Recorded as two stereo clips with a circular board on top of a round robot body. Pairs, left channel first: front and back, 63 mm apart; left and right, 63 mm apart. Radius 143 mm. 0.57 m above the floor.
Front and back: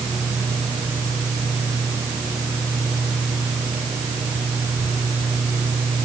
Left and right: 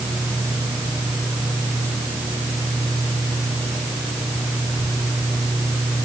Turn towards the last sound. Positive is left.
No sound to turn to.